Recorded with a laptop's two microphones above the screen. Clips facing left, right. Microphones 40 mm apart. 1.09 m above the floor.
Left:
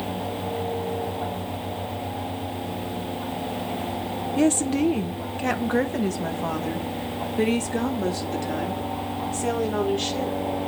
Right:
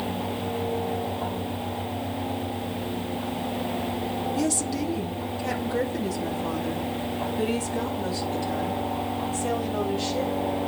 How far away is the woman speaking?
About 0.6 m.